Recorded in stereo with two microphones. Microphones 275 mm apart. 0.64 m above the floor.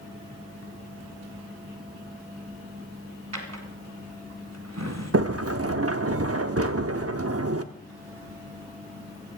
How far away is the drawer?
About 1.7 m.